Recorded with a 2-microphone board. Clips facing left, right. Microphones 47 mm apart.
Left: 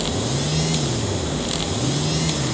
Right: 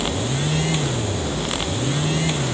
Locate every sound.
Only background noise.